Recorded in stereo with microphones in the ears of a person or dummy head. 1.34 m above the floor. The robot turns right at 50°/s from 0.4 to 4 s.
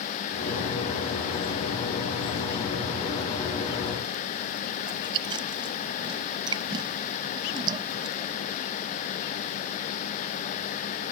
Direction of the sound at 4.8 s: 25° right (ahead or behind).